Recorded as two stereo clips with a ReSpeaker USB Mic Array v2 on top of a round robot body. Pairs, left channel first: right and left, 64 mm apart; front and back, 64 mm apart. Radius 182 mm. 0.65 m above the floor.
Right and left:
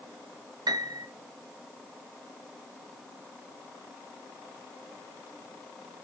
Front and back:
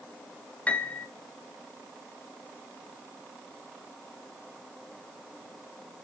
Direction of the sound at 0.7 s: 70° left.